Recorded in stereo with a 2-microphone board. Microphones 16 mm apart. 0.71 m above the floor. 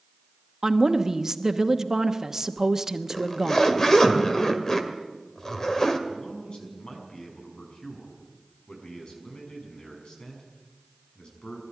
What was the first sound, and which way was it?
A woman speaking, 30° right (ahead or behind).